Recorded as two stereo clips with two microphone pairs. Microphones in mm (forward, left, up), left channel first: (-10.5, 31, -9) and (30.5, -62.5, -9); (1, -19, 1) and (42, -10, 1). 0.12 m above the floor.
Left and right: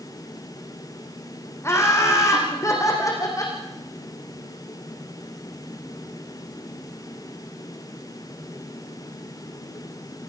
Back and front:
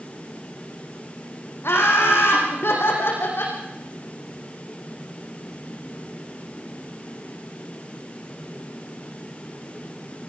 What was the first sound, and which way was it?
Laughter, 175° left.